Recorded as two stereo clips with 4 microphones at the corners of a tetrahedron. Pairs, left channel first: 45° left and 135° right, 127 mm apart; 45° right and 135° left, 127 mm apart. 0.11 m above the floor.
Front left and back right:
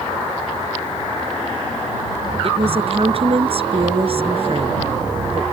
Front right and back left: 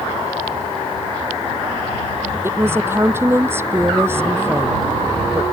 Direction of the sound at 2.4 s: 160° right.